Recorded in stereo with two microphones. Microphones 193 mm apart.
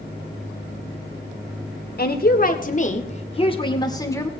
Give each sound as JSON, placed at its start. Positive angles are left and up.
{"t": 2.0, "sound": "a woman speaking", "side_deg": 55, "distance_m": 1.9}